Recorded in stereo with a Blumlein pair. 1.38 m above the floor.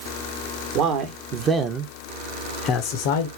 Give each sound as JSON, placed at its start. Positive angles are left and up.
{"t": 0.8, "sound": "a man speaking", "azimuth_deg": -40, "distance_m": 1.1}